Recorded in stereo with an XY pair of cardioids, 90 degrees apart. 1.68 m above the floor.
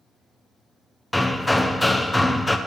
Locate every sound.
1.1 s hammering: 10° left, 0.9 m